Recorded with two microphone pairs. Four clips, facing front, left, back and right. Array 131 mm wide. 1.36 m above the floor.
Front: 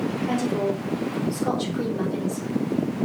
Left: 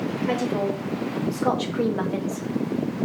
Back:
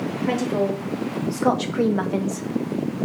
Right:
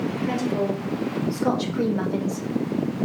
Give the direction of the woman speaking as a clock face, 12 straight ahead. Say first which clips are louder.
Left 1 dB, back 3 dB; 6 o'clock.